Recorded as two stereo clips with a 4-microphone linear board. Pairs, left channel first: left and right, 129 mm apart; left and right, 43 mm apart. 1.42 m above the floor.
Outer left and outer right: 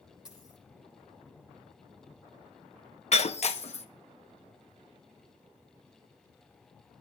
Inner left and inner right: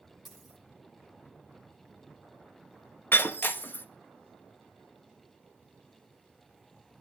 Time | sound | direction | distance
0.2 | a dropped coin | 5° right (ahead or behind) | 8.5 m
3.1 | breaking glass | 60° left (ahead or behind) | 1.0 m